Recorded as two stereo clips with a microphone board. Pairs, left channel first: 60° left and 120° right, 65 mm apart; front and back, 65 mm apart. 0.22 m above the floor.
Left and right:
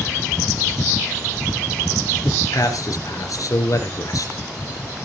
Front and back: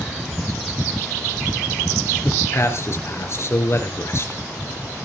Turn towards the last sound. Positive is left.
turn(degrees=40)